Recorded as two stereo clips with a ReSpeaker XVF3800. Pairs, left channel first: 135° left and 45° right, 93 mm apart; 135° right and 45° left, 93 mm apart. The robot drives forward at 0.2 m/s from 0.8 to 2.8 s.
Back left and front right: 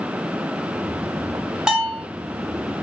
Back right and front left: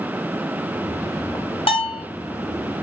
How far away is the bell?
About 1.3 m.